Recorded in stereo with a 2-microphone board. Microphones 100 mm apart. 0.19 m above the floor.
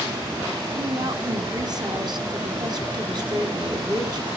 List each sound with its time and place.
0.8 s a woman speaking: 45° right (ahead or behind), 2 m